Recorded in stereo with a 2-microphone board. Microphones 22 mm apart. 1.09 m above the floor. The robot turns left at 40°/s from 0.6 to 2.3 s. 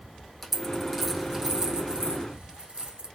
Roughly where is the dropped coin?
Centre.